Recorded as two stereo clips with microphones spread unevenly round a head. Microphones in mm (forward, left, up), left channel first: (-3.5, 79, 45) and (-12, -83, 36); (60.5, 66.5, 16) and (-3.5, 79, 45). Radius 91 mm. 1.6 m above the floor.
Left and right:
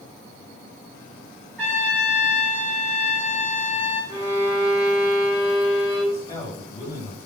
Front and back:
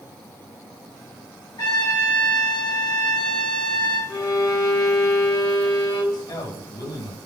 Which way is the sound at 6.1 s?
15° left.